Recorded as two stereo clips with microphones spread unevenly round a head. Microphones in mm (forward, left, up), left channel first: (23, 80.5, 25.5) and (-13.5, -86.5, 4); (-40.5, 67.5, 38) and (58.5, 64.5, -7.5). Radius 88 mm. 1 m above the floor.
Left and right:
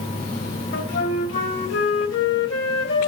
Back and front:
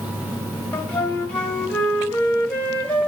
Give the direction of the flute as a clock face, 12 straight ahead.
9 o'clock.